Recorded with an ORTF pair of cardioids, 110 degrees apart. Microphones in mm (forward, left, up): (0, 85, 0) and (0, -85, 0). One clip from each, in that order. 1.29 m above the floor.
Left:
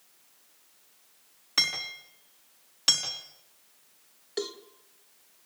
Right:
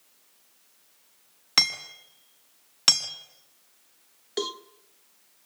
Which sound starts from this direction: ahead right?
Hammering, at 1.6 s.